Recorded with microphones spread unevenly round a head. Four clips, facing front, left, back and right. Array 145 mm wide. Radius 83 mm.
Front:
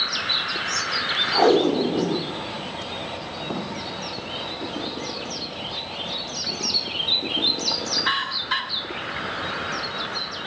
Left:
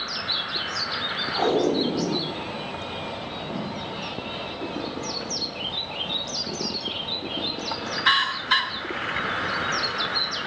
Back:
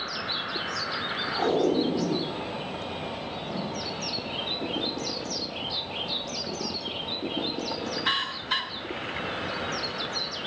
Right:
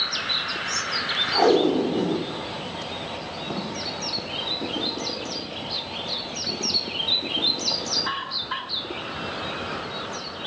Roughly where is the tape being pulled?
Ahead.